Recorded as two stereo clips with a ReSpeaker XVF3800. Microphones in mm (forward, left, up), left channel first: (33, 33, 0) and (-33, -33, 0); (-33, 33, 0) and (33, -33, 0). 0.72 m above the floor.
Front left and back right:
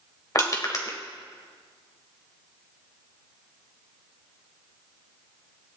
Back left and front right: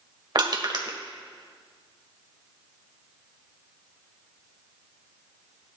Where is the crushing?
5° right, 1.6 m.